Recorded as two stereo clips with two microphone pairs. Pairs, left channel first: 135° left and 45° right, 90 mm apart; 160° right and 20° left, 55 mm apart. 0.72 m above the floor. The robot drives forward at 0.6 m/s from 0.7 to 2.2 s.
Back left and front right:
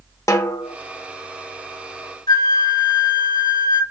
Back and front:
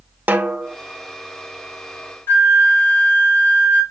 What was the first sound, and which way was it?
A snare drum, 80° left.